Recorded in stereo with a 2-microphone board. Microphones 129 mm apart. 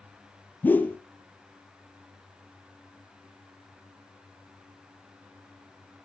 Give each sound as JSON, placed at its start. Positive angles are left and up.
{"t": 0.6, "sound": "a whoosh", "side_deg": 15, "distance_m": 0.8}